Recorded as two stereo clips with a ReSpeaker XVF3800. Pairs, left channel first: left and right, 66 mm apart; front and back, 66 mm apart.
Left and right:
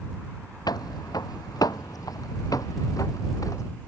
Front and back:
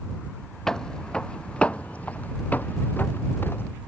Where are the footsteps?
80° left; by 3.7 s 55° left.